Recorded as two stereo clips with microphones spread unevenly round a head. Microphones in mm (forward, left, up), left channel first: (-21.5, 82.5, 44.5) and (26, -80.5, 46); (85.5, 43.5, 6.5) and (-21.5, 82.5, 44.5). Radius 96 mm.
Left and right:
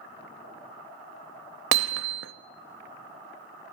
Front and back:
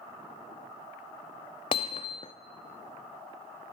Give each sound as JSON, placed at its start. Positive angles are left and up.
{"t": 1.7, "sound": "hammering", "azimuth_deg": -90, "distance_m": 0.9}